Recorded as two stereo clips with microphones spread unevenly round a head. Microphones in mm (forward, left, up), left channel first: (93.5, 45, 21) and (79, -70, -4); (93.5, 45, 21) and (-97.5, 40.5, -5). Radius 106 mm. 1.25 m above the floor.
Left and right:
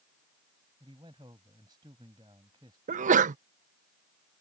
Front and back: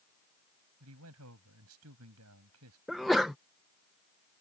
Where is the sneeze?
90° right.